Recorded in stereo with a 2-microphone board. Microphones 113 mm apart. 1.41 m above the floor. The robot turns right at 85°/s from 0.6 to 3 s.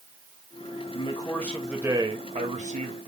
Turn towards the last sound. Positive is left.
turn(degrees=-60)